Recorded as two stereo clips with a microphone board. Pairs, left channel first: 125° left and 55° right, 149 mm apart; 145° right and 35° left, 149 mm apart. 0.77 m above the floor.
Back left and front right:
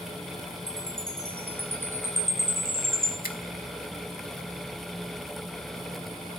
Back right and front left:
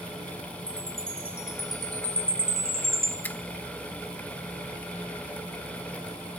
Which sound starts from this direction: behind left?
A finger snap, at 3.2 s.